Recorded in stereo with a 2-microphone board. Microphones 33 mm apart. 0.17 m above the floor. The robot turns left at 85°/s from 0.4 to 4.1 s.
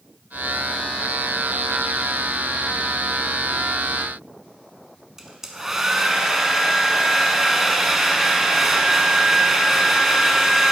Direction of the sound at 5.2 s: 10° right (ahead or behind).